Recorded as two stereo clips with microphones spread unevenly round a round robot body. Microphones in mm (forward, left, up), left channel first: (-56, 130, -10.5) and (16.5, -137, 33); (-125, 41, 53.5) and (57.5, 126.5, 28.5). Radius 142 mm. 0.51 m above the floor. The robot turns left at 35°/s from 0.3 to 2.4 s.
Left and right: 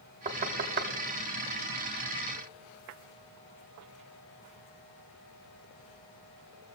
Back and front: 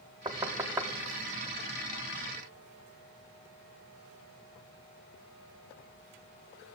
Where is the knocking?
15° right, 0.5 m; by 0.9 s 35° right, 0.5 m.